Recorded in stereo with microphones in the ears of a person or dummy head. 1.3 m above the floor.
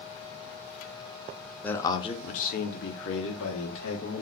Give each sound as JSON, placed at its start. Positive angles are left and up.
{"t": 1.6, "sound": "a man speaking", "side_deg": 5, "distance_m": 0.6}